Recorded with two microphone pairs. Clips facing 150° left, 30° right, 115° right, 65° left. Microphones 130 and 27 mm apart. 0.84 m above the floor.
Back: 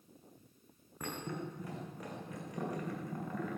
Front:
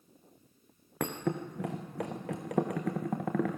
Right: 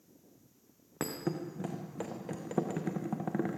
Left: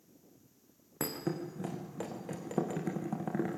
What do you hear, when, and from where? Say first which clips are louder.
1.0 s a thud: front 8 dB, even; 30° right, 4 m